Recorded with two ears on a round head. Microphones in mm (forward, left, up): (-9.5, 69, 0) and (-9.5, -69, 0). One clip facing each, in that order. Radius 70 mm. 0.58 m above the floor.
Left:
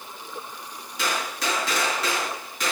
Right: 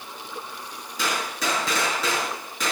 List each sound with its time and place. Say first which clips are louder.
1.0 s a gunshot: right 1 dB; 65° right (ahead or behind), 8.5 m